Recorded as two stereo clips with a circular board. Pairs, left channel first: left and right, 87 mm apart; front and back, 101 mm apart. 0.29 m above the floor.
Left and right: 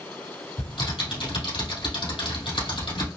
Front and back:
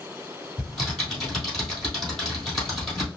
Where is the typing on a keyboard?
85° left, 3 m.